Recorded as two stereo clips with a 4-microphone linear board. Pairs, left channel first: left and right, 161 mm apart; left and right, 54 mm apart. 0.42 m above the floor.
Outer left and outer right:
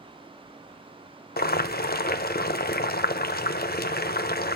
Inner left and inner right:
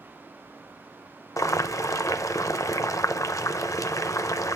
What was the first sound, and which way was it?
Boiling, 65° left (ahead or behind).